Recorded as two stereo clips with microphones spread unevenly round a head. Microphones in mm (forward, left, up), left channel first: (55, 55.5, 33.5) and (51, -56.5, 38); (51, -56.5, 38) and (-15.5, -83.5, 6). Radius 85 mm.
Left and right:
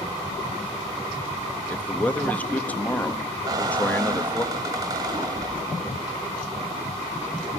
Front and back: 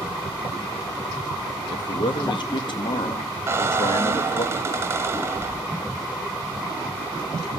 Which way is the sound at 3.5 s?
90° right.